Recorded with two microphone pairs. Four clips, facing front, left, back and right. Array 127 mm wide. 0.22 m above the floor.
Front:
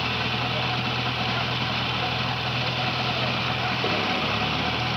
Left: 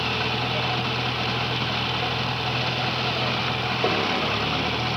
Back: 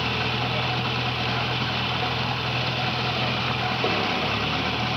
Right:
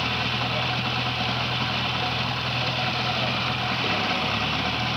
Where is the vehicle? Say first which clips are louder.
Left 1 dB, back 1 dB; 115° left; by 5.0 s 105° left.